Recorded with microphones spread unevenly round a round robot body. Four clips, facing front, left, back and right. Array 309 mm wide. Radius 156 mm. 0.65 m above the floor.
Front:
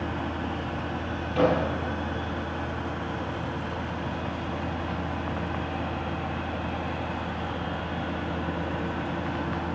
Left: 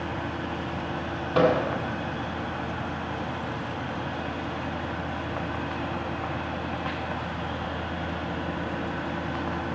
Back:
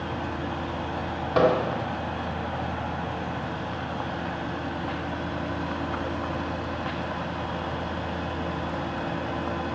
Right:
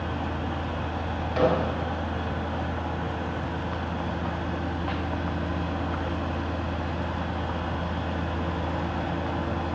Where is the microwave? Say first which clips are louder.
Left 2 dB, back 2 dB; 140° left, 2.5 m.